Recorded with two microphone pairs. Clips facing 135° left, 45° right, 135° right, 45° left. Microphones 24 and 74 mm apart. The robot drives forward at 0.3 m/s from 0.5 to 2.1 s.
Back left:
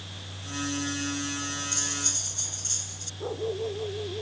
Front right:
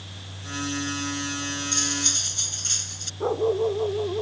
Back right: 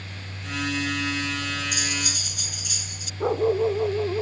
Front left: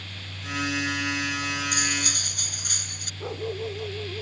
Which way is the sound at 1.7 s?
Straight ahead.